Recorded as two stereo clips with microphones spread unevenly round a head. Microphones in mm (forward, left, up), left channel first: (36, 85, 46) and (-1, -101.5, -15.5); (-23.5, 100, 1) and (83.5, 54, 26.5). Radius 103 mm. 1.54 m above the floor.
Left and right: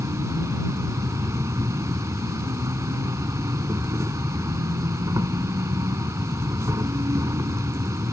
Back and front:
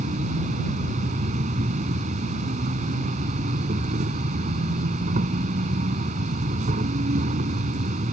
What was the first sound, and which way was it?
An insect, 25° right.